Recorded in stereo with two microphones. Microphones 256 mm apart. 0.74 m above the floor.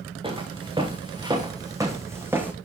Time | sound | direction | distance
0.2 | footsteps | 20° right (ahead or behind) | 3 m